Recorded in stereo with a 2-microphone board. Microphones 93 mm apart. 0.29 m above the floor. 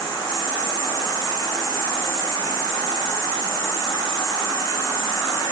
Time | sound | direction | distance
0.0 | an insect | 40° left (ahead or behind) | 2.5 m